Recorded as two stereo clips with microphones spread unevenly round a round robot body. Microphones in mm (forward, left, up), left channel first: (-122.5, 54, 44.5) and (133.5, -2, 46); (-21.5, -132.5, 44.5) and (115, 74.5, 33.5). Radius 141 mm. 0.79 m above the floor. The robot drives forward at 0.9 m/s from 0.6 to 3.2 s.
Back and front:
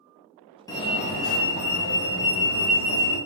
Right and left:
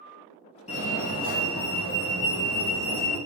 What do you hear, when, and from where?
0.7 s a fire alarm: 135° right, 1.4 m; by 3.2 s 170° right, 3 m